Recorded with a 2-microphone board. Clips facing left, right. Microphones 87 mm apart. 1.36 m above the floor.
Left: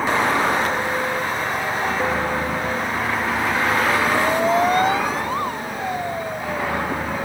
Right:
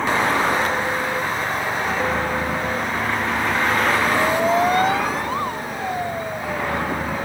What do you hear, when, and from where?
0.0 s a vehicle: 5° left (ahead or behind); by 7.3 s centre (ahead or behind)